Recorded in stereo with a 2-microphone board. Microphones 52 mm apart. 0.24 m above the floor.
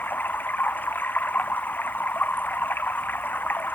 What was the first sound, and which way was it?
Running water, 35° left (ahead or behind).